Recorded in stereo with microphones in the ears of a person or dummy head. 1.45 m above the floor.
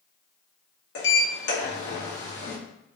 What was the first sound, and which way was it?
A sliding door, 60° left (ahead or behind).